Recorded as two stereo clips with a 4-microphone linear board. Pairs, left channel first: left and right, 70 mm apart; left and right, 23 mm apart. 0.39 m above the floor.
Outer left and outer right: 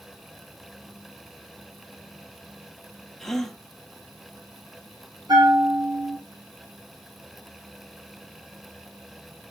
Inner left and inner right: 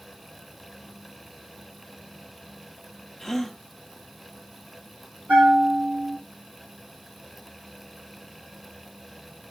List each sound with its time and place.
3.2 s a gasp: 5° left (ahead or behind), 1.3 m
5.3 s a bell: 80° right, 7 m